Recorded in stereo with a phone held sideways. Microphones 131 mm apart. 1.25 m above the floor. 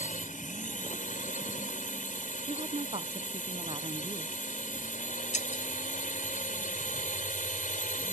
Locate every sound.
0.0 s a drone: 80° left
2.5 s a woman speaking: 45° right (ahead or behind)
5.3 s breaking glass: 65° left (ahead or behind)